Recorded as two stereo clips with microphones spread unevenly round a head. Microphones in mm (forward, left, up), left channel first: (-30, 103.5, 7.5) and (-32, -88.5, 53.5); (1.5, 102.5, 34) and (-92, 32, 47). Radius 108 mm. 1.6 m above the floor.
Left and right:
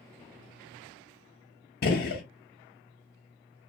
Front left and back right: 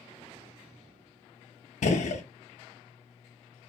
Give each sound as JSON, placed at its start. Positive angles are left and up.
{"t": 1.8, "sound": "a gunshot", "azimuth_deg": 40, "distance_m": 0.6}